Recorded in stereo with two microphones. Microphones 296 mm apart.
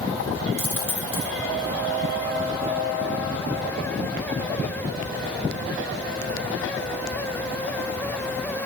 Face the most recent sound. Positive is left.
turn(degrees=80)